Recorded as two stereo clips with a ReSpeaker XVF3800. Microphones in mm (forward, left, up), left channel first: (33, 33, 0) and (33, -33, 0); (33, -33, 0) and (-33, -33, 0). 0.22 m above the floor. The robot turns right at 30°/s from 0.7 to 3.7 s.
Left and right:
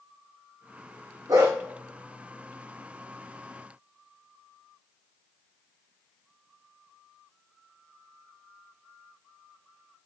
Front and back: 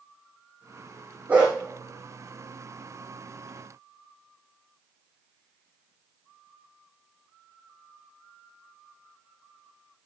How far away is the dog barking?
About 4 m.